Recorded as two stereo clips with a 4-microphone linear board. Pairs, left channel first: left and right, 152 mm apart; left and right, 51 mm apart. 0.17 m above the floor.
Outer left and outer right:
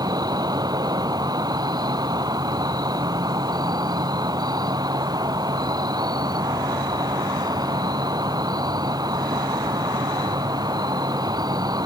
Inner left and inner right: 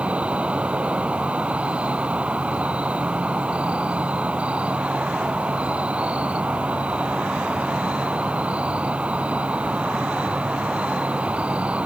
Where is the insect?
25° right (ahead or behind).